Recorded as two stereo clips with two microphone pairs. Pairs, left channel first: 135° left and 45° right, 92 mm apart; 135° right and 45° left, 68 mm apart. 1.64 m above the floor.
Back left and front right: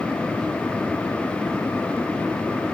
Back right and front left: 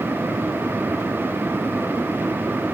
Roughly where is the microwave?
I don't hear a microwave.